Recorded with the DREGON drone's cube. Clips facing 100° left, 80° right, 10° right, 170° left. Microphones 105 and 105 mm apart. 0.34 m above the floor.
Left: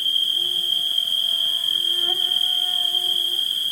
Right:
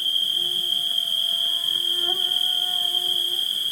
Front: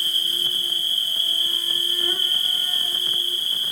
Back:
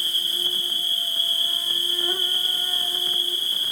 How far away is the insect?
About 1.0 m.